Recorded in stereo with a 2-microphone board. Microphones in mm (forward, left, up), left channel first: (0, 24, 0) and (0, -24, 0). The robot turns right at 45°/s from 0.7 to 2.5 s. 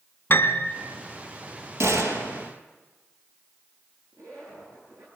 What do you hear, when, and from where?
0.3 s a piano: 50° left (ahead or behind), 1.4 m
1.8 s a gunshot: 100° right, 3.5 m; by 2.5 s 65° right, 3.5 m
4.1 s a zipper: 75° right (ahead or behind), 8.5 m